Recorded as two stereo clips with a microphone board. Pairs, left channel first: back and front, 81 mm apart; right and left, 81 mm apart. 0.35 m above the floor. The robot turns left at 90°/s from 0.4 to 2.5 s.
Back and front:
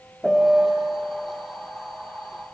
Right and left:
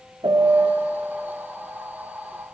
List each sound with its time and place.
0.2 s a piano: 95° left, 0.6 m; by 0.9 s 45° left, 0.6 m